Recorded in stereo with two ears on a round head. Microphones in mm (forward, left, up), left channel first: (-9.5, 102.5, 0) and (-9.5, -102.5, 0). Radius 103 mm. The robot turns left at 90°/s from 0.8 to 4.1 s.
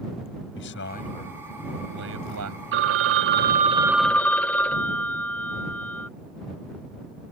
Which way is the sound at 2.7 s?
65° right.